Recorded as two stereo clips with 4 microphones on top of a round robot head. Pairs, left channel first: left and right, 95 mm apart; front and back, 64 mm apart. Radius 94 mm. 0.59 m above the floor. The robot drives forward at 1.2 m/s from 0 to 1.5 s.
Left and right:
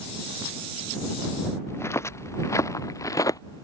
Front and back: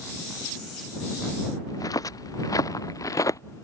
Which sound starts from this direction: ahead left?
Footsteps, at 1.7 s.